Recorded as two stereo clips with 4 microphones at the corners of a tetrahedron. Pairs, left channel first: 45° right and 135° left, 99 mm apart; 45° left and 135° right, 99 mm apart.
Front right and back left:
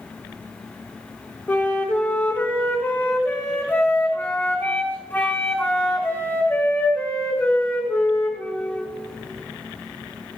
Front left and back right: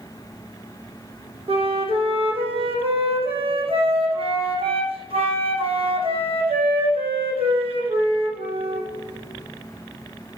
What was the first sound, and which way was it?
A flute, 120° right.